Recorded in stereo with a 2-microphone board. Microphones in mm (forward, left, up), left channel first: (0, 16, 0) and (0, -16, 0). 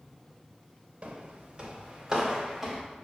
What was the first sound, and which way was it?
Footsteps, 35° right (ahead or behind).